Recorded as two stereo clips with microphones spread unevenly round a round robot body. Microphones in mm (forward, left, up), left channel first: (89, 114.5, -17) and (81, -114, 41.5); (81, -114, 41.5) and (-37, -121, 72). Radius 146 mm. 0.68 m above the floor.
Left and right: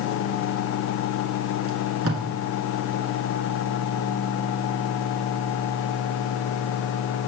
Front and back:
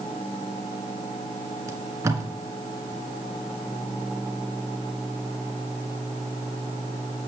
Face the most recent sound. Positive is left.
turn(degrees=-120)